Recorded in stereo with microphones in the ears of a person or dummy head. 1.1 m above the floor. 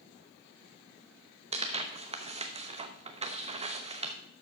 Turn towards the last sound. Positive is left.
turn(degrees=-25)  # may be behind; listen again after turning